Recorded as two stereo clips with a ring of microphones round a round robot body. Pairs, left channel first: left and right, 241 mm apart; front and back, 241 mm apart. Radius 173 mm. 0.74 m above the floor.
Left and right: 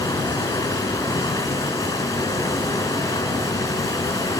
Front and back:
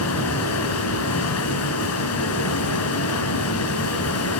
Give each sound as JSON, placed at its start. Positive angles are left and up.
{"t": 0.0, "sound": "running water", "azimuth_deg": 10, "distance_m": 4.5}